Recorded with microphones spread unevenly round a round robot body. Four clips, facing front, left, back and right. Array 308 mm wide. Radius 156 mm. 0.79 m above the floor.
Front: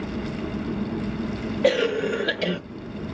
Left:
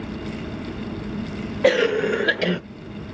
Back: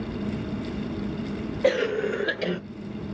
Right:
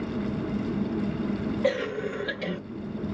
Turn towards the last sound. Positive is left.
turn(degrees=75)